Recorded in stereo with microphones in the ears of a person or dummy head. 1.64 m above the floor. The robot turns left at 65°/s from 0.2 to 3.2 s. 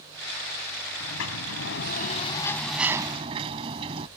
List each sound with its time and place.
1.0 s a sliding door: 115° left; by 4.1 s 30° right